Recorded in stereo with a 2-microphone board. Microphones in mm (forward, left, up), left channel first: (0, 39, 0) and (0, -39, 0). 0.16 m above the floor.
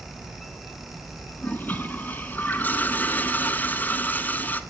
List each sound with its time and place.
1.4 s a toilet flushing: 25° left (ahead or behind), 1.0 m